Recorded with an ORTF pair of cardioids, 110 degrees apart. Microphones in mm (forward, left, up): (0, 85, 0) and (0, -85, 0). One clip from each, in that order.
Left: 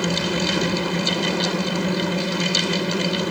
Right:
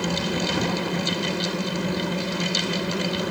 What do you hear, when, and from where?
0.0 s a fan: 25° left